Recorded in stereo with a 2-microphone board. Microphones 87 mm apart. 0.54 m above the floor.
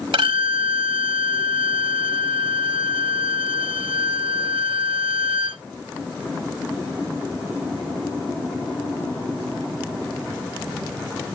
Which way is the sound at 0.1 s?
80° right.